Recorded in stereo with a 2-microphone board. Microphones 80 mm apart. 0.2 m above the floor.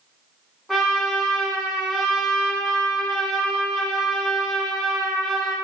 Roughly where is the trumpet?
Centre.